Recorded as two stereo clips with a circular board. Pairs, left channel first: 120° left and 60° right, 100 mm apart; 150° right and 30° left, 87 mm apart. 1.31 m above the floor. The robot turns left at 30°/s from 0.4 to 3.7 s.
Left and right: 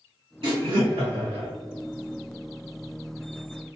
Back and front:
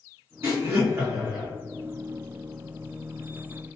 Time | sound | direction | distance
0.4 | laughter | 20° right | 1.3 m